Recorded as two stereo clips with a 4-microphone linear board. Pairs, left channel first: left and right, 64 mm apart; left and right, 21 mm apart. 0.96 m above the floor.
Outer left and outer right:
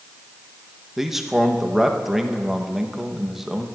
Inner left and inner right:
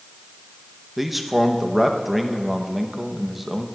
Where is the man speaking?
5° right (ahead or behind), 0.9 m.